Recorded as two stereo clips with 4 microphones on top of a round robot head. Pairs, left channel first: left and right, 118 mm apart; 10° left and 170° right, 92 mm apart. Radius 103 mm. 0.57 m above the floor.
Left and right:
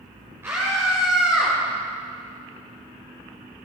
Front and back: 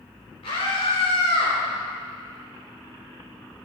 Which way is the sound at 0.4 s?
20° right.